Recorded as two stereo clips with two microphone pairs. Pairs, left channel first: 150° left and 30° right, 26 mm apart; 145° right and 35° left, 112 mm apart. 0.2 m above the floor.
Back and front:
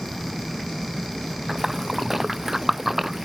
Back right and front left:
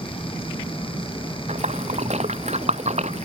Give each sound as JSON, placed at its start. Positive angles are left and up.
{"t": 1.5, "sound": "a splash", "azimuth_deg": 50}